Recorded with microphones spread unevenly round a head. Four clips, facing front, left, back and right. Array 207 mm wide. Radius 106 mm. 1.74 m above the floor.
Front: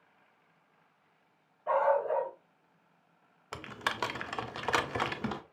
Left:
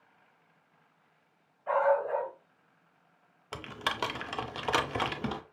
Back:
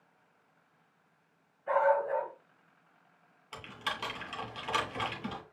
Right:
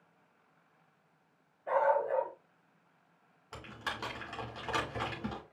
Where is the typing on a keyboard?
55° left, 0.6 m.